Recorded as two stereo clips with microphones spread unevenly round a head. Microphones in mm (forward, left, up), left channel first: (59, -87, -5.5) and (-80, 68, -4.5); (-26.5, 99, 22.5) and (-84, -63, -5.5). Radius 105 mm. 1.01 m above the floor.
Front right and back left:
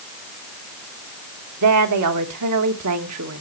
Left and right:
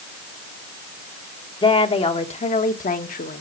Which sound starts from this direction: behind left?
A woman speaking, at 1.6 s.